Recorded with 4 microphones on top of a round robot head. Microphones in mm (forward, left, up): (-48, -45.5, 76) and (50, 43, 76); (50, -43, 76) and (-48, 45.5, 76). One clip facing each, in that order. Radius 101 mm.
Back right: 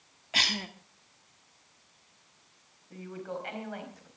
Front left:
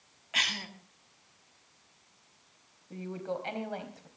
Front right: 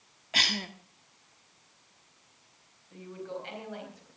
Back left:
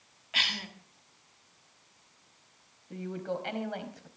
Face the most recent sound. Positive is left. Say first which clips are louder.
# front left 2 dB, back left 5 dB
turn(degrees=105)